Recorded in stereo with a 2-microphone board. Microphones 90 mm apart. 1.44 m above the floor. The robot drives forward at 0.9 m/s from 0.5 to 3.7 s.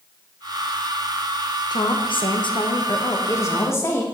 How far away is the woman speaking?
About 1.0 m.